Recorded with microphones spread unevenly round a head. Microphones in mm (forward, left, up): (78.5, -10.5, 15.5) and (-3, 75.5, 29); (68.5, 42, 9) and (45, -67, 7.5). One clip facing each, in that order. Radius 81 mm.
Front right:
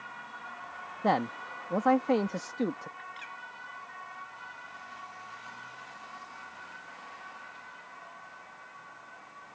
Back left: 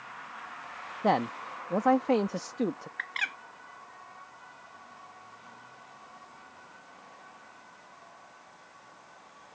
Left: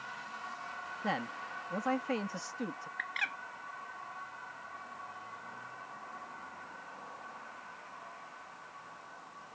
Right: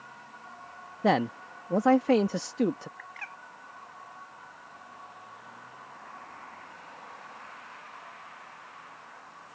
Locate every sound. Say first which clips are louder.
1.0 s a man speaking: back left 1 dB, right 12 dB; 140° right
3.0 s a bird: back left 4 dB, left 4 dB; 125° left